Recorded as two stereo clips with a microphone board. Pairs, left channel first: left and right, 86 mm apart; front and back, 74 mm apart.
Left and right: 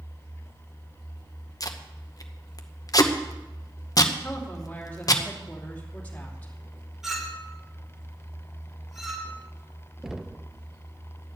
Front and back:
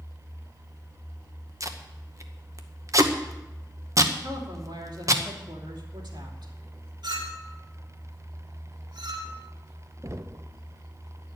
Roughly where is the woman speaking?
Behind.